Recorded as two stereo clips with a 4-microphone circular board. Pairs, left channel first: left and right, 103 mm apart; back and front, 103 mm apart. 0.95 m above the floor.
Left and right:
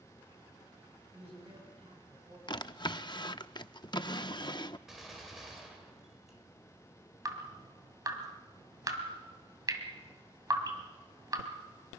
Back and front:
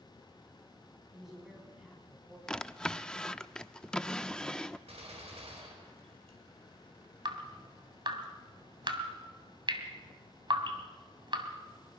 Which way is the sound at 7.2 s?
40° right.